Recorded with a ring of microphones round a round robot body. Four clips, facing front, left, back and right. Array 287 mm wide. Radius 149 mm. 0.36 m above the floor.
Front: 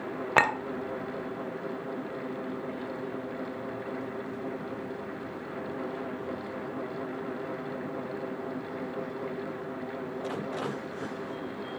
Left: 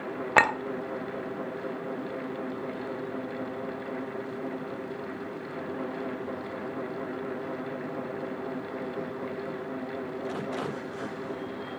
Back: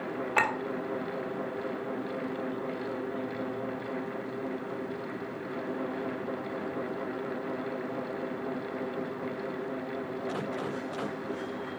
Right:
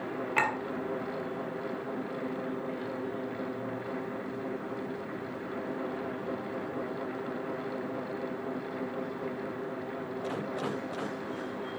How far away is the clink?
About 0.9 m.